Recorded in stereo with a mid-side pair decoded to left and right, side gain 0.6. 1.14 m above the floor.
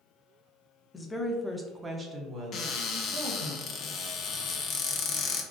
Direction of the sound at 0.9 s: 20° left.